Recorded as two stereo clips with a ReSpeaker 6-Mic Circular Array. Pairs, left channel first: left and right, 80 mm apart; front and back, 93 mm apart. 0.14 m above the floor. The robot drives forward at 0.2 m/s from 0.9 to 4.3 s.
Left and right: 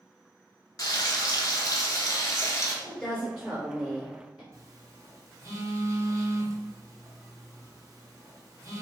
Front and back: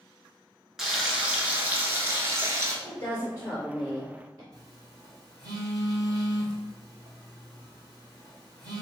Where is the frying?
95° left, 0.6 m; by 2.7 s 130° left, 0.7 m.